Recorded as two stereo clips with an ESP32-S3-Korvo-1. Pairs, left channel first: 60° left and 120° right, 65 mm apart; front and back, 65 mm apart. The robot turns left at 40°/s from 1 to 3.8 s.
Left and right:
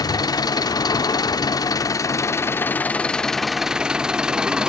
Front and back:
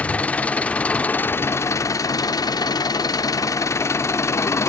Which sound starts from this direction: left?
An engine running, at 0.0 s.